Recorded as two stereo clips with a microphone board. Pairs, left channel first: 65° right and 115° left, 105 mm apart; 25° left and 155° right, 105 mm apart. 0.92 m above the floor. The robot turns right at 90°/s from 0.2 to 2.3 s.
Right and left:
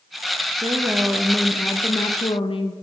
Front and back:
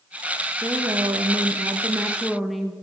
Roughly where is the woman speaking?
Behind left.